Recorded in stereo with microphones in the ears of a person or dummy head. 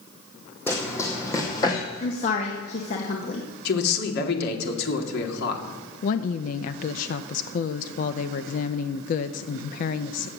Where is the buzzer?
I don't hear a buzzer.